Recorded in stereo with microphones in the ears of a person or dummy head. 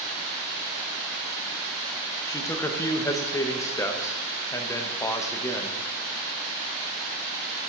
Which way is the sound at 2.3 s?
20° left (ahead or behind).